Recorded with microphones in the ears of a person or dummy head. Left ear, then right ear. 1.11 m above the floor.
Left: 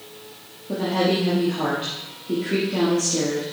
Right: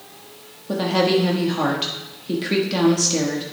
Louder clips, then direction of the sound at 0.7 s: Right 3 dB; 55° right (ahead or behind).